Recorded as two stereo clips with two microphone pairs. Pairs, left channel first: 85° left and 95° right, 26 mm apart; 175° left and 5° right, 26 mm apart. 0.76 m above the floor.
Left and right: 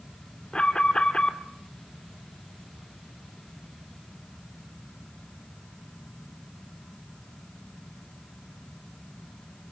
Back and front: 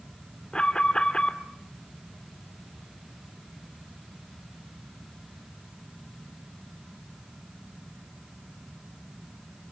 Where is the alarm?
130° left, 2 m.